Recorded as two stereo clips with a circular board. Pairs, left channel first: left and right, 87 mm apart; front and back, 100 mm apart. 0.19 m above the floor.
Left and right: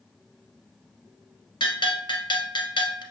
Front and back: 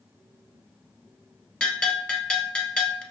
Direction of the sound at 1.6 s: 80° left.